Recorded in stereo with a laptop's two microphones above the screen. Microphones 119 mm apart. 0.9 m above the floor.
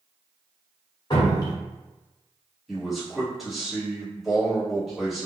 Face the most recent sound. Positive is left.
turn(degrees=0)  # may be behind; listen again after turning